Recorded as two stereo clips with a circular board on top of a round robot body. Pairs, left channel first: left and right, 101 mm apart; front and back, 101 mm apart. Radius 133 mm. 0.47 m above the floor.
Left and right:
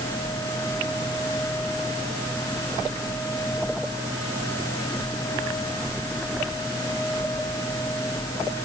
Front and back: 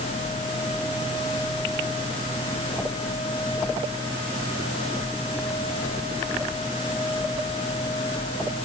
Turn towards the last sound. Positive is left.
No sound to turn to.